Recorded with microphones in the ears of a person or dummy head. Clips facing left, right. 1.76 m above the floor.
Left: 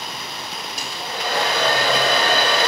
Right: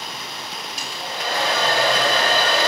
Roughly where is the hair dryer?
Left.